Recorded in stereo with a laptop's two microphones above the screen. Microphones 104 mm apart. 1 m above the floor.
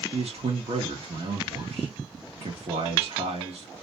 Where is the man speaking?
70° right (ahead or behind), 1.4 m.